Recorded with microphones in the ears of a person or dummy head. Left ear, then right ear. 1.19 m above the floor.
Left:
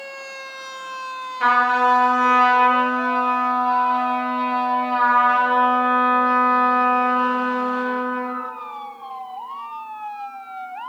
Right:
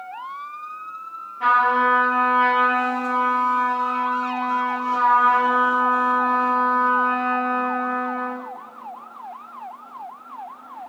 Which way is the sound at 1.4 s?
50° left (ahead or behind).